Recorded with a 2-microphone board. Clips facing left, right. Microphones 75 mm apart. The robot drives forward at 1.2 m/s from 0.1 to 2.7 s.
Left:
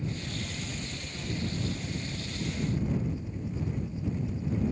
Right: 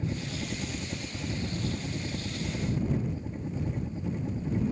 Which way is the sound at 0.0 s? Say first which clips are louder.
Right 2 dB; 45° right (ahead or behind).